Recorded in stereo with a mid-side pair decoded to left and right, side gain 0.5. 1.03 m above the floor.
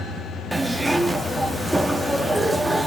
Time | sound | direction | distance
0.5 | a zipper | 15° right | 1.6 m